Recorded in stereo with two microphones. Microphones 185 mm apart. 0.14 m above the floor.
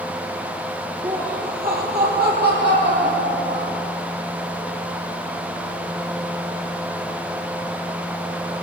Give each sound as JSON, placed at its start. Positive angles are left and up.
{"t": 1.0, "sound": "laughter", "side_deg": -40, "distance_m": 4.0}